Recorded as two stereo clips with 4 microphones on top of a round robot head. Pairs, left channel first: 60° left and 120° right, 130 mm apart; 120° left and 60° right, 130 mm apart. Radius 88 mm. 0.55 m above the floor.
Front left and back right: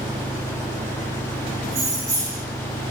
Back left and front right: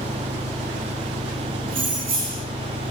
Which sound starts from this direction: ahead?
An engine running, at 0.0 s.